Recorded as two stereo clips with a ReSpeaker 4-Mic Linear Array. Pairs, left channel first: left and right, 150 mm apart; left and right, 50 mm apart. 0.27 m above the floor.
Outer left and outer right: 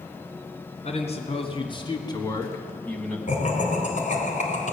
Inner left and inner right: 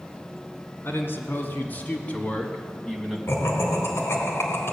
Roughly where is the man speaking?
Left.